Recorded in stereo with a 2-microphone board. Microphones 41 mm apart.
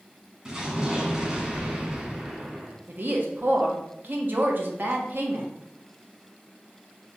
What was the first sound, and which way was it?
An explosion, 20° right (ahead or behind).